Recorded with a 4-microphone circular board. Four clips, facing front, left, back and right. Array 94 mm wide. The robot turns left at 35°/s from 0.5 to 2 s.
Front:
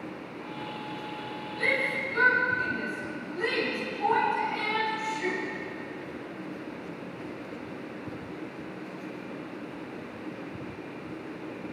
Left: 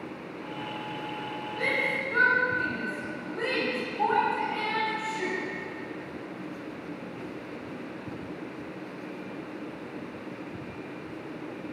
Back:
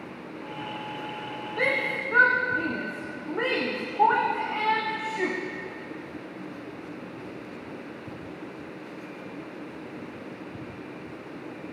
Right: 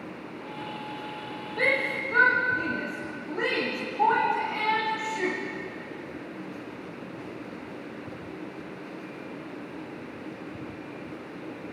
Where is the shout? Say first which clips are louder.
Right 3 dB, back 2 dB; 150° right, 8 m; by 5.4 s 165° right, 8 m.